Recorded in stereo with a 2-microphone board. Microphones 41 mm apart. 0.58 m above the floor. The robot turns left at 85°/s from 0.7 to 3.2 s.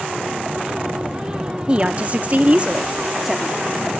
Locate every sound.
1.7 s a woman speaking: 40° right, 0.7 m; by 3.6 s 170° right, 0.7 m